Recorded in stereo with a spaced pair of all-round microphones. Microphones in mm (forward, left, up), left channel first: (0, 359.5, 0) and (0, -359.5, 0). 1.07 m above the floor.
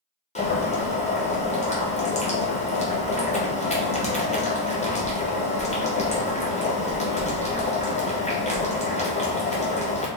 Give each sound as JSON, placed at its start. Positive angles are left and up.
{"t": 0.3, "sound": "boiling", "side_deg": 10, "distance_m": 0.7}